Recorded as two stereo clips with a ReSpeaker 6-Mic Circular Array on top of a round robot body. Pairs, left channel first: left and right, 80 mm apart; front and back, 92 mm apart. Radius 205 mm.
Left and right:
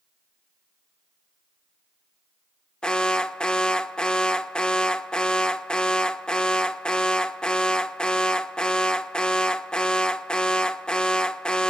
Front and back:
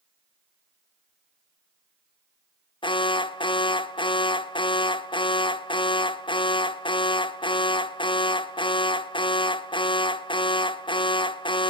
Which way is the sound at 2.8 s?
10° left.